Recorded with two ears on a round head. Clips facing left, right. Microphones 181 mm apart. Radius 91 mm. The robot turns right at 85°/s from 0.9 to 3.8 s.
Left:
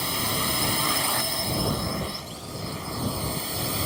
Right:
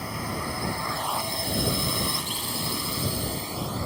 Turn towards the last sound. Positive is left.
turn(degrees=40)  # may be behind; listen again after turning